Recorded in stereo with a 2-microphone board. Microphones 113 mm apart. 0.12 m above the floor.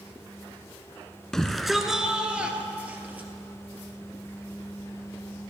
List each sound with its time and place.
1.3 s a shout: 5° left (ahead or behind), 1.1 m; by 3.3 s 15° right (ahead or behind), 2.5 m